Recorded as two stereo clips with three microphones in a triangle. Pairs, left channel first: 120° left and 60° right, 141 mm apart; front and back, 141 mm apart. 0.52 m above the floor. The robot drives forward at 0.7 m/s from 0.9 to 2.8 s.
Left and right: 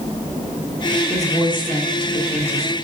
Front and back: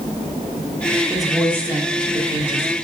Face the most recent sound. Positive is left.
turn(degrees=155)